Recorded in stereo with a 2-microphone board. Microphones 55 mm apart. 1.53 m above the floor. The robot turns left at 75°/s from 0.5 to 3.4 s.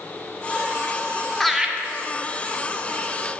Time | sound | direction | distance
1.4 | laughter | 5° left (ahead or behind) | 0.7 m